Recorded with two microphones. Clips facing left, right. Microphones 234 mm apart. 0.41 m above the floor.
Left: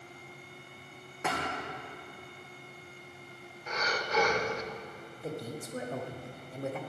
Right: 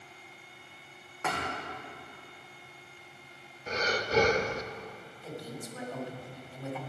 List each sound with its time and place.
1.2 s a thud: 15° left (ahead or behind), 3.5 m
3.7 s breathing: 35° right (ahead or behind), 0.5 m
5.2 s a man speaking: 50° left (ahead or behind), 1.3 m